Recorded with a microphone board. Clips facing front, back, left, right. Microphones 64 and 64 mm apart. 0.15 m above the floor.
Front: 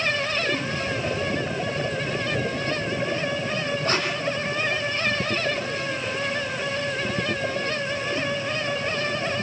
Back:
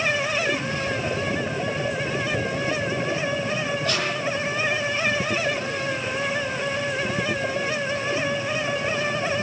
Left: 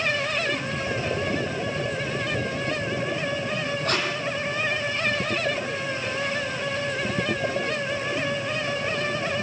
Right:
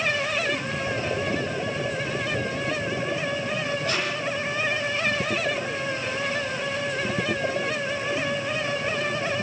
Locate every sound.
3.9 s tape being pulled: 55° left, 6.5 m